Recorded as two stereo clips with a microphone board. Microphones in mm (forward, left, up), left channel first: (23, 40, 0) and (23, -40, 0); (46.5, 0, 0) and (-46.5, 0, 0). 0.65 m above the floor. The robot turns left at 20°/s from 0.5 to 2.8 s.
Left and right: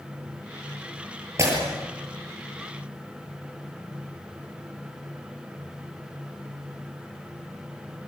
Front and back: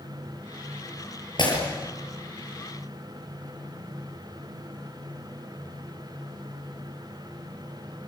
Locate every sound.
1.4 s breaking glass: 35° right, 7.5 m; by 1.6 s 40° right, 7.5 m